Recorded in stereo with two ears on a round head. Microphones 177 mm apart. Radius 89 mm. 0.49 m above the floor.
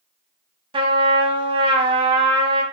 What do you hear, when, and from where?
0.7 s a trumpet: 25° right (ahead or behind), 2.0 m